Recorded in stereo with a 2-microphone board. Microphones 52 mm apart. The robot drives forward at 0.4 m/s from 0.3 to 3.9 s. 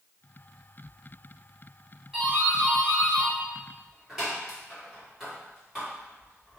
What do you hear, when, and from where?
2.1 s a doorbell: 15° right (ahead or behind), 1.9 m; by 6.6 s 10° right (ahead or behind), 2.5 m